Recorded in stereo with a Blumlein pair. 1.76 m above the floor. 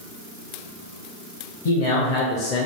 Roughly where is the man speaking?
Ahead left.